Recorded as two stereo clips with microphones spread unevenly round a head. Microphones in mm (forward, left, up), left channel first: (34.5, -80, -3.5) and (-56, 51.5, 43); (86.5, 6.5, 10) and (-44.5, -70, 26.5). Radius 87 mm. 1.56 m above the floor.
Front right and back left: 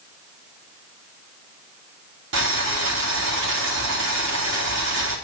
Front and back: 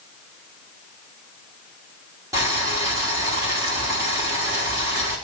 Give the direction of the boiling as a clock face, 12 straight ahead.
7 o'clock.